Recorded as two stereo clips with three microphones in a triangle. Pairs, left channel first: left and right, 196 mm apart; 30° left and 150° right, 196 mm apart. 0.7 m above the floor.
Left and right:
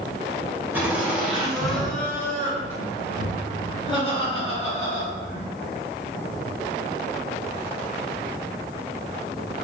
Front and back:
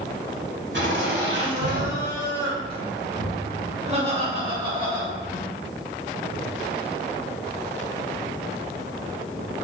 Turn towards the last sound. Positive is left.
turn(degrees=140)